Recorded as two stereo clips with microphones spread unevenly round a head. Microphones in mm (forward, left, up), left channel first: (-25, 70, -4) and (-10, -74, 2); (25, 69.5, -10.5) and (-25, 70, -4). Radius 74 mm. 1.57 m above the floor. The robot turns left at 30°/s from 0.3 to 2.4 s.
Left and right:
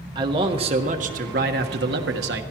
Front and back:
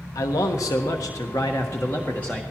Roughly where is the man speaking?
Ahead.